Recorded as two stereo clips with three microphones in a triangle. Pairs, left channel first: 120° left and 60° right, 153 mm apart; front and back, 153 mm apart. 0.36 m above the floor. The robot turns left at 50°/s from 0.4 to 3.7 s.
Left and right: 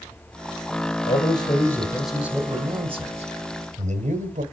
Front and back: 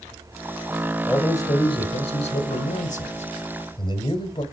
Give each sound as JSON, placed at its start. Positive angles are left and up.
{"t": 1.1, "sound": "a man speaking", "azimuth_deg": 80, "distance_m": 1.7}